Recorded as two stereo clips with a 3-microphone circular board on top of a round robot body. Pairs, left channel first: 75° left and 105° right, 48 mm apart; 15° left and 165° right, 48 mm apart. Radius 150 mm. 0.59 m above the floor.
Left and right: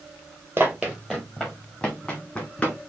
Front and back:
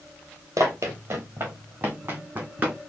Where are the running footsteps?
155° right, 0.6 m; by 2.8 s 135° left, 1.7 m.